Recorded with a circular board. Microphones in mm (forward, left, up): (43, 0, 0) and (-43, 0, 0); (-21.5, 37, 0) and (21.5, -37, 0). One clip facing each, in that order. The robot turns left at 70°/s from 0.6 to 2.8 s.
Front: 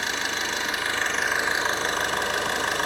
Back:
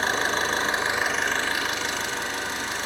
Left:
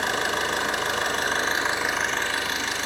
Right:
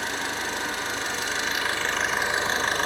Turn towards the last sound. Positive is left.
turn(degrees=-25)